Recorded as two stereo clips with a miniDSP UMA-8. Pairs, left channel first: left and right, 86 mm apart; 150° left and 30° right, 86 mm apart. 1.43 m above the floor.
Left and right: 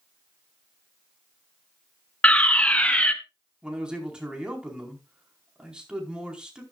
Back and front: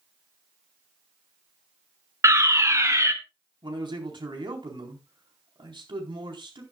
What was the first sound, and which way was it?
A fire alarm, 15° left.